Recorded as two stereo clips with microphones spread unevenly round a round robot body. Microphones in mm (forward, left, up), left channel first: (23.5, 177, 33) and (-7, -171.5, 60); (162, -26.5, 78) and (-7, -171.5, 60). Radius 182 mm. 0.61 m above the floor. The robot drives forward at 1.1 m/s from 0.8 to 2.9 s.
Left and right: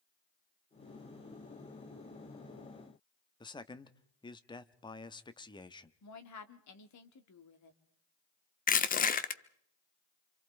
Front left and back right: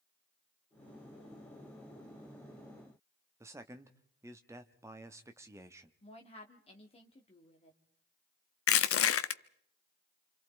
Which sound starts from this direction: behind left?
A man speaking, at 3.4 s.